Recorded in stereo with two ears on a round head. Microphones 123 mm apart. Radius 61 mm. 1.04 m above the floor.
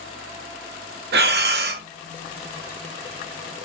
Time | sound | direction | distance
1.1 | breathing | 80° right | 0.8 m